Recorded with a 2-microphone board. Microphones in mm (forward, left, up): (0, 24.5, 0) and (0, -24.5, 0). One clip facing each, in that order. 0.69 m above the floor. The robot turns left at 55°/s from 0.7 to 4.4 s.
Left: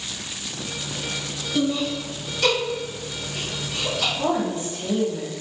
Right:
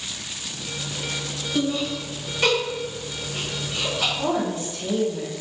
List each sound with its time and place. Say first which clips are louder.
1.6 s laughter: left 1 dB; centre (ahead or behind), 1.1 m; by 4.1 s 25° right (ahead or behind), 1.1 m
4.2 s a woman speaking: left 1 dB; 40° left (ahead or behind), 1.2 m; by 5.3 s 30° left (ahead or behind), 1.2 m